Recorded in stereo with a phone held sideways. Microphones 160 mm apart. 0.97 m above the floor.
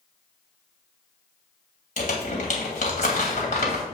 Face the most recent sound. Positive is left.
turn(degrees=50)  # may be behind; listen again after turning